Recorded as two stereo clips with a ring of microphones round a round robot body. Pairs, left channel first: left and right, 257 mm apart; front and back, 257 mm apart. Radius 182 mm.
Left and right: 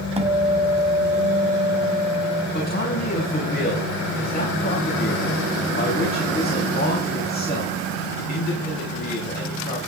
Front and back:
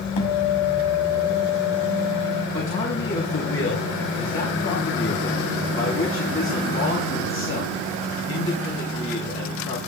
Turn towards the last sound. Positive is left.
turn(degrees=35)